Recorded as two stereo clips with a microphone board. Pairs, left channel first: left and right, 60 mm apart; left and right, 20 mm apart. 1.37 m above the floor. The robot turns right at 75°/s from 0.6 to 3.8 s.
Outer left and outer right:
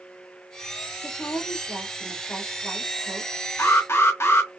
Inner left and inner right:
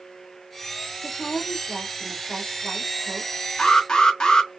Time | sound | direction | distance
1.0 | a woman speaking | 65° left | 0.9 m
3.6 | an alarm | 55° left (ahead or behind) | 0.7 m